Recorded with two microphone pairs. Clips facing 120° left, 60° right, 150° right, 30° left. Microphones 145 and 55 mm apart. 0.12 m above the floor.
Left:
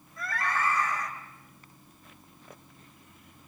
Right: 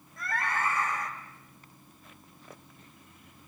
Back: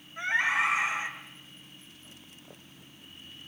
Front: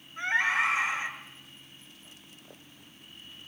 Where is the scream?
85° right, 5.5 m.